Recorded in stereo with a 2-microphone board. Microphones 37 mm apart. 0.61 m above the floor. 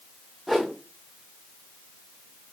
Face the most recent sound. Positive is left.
turn(degrees=0)  # may be behind; listen again after turning